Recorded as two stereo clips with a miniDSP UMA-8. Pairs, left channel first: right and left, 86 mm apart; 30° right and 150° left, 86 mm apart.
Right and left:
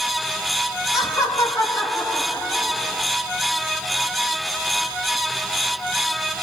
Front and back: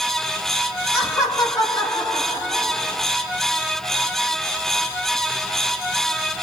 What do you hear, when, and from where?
0.9 s laughter: 70° right, 1.6 m; by 3.1 s 25° right, 3.5 m